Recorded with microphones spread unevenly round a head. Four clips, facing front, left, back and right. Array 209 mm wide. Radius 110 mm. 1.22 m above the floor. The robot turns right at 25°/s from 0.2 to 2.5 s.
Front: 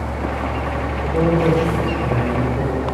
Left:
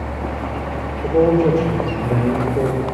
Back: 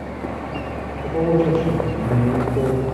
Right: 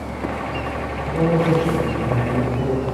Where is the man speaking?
90° left, 3.5 m; by 2.8 s 125° left, 3.5 m.